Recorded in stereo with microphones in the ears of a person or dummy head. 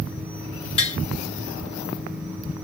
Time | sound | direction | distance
0.8 | tapping | 30° left (ahead or behind) | 1.6 m